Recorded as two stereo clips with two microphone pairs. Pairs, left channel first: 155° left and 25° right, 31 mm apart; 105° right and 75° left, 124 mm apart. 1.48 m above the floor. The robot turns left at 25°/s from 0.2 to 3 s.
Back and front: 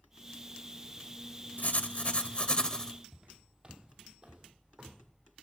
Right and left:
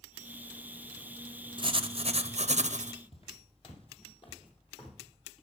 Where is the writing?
125° left, 0.6 m; by 2.9 s 90° left, 0.6 m.